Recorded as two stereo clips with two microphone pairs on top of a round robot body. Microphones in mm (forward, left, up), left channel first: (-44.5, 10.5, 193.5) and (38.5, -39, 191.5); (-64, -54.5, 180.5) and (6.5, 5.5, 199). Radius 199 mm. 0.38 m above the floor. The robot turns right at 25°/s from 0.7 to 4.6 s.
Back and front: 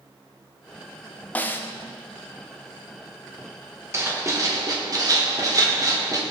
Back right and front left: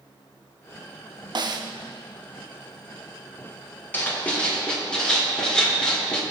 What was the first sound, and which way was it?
A snare drum, 75° left.